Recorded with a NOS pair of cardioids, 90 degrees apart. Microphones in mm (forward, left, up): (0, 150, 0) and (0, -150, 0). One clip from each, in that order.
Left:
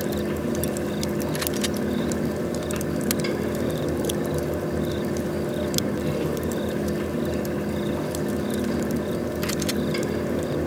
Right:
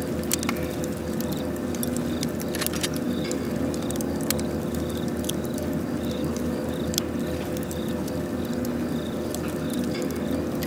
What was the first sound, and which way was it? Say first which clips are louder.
A fan: left 1 dB; 45° left.